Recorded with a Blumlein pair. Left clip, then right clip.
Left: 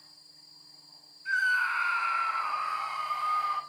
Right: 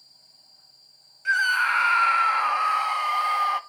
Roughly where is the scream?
Ahead right.